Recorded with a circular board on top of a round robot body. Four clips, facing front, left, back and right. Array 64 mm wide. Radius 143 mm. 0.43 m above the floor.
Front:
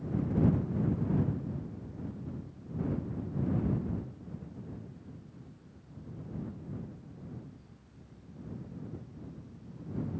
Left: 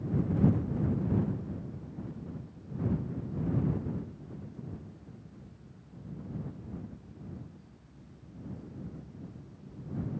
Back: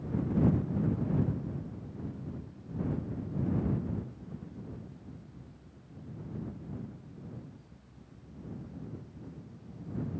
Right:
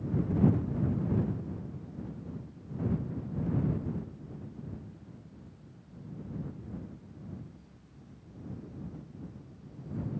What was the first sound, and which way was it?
Only background noise.